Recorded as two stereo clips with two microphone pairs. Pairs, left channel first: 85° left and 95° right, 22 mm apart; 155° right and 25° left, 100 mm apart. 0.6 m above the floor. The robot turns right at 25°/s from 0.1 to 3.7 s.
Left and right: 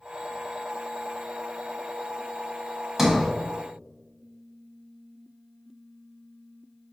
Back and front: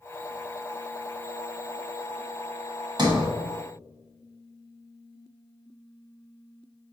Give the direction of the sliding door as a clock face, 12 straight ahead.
1 o'clock.